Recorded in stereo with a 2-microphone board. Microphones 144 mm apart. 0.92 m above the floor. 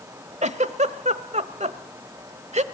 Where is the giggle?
50° right (ahead or behind), 1.0 m.